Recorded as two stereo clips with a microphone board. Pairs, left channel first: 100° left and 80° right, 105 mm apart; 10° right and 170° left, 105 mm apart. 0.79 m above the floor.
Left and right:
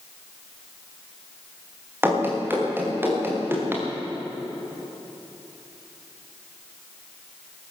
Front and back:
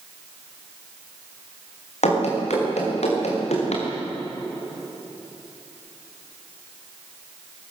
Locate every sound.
2.0 s running footsteps: 10° right, 7 m